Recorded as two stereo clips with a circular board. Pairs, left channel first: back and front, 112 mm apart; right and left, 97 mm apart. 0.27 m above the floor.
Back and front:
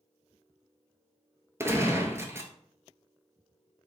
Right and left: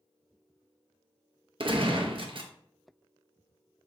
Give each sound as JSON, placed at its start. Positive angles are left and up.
{"t": 1.6, "sound": "a gunshot", "azimuth_deg": 65, "distance_m": 0.8}